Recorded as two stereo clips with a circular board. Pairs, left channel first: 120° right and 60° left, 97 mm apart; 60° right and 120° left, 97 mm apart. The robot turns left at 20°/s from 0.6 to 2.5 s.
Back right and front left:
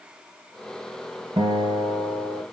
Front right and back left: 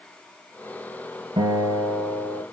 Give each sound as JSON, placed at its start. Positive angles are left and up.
{"t": 1.4, "sound": "a guitar", "azimuth_deg": 100, "distance_m": 5.5}